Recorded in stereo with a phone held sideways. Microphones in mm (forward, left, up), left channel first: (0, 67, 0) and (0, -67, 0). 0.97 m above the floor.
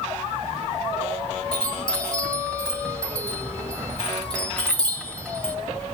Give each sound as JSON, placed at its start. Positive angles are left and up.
{"t": 1.5, "sound": "a chime", "side_deg": 5, "distance_m": 1.6}